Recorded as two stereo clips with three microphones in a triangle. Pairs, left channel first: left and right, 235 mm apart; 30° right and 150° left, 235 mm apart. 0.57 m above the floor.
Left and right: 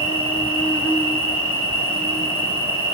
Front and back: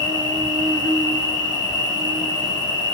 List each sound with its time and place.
0.0 s an insect: 115° left, 4.5 m